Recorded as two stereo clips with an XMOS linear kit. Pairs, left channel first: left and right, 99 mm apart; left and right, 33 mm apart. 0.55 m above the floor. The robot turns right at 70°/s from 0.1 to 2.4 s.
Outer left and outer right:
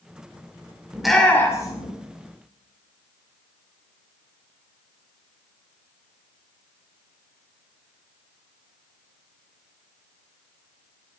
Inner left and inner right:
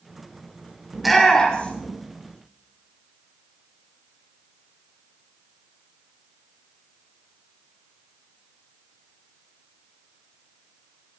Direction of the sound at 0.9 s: 10° right (ahead or behind).